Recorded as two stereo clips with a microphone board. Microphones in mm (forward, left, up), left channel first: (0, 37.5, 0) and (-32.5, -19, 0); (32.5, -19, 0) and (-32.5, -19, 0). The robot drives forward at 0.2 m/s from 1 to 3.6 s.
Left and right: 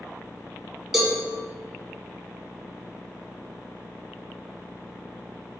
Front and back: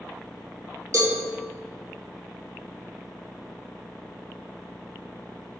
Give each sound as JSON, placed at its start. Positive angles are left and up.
{"t": 0.9, "sound": "a cowbell", "azimuth_deg": 155, "distance_m": 1.2}